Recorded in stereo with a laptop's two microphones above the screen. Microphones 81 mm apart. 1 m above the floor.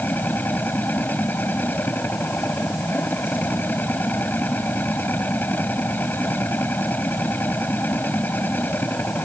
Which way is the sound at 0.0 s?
25° left (ahead or behind).